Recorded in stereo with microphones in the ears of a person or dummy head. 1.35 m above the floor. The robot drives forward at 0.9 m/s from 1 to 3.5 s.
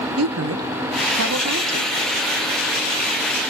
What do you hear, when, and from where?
0.2 s a woman speaking: 75° right (ahead or behind), 1.1 m; by 1.9 s 50° right (ahead or behind), 1.4 m